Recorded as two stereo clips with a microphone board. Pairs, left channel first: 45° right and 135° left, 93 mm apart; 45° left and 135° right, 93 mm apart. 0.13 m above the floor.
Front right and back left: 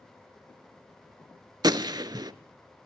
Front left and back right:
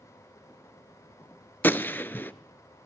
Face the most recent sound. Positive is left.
turn(degrees=110)